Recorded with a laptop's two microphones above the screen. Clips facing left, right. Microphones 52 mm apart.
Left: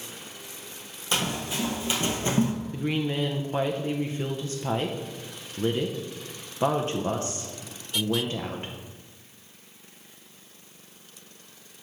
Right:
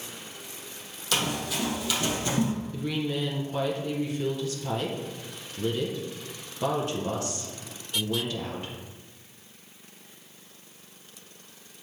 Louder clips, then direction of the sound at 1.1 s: Even; 25° left (ahead or behind).